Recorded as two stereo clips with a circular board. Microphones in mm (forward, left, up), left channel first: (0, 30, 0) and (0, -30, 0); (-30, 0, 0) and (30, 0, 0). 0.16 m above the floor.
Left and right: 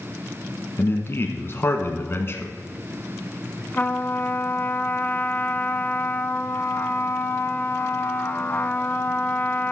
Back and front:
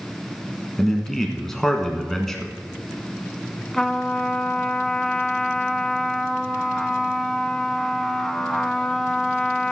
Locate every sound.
0.8 s a man speaking: 95° left, 1.3 m
3.7 s a trumpet: 105° left, 0.5 m